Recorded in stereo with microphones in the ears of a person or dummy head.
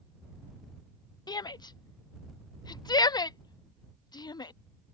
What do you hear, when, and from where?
1.3 s a shout: 25° left (ahead or behind)